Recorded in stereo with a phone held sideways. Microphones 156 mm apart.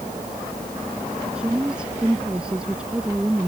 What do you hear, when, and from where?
1.3 s a woman speaking: 5° right (ahead or behind)